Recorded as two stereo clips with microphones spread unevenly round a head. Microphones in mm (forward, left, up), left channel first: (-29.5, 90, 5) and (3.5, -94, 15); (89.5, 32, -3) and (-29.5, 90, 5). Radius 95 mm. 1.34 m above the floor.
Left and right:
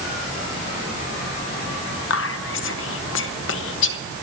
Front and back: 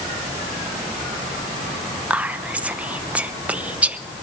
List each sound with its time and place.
2.1 s whispering: 75° left, 0.8 m